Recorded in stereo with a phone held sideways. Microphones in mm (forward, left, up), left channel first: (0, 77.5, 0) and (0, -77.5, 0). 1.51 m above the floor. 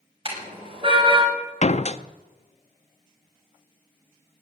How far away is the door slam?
About 0.6 m.